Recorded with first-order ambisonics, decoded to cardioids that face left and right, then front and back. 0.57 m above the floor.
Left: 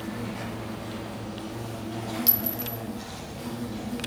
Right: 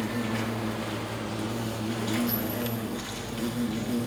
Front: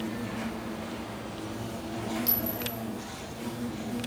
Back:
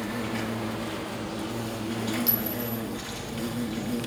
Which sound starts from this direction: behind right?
An insect, at 0.0 s.